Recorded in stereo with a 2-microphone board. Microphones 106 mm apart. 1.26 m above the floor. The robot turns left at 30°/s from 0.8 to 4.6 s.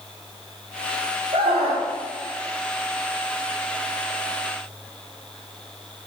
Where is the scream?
65° right (ahead or behind), 3.5 m; by 1.9 s 80° right, 3.5 m.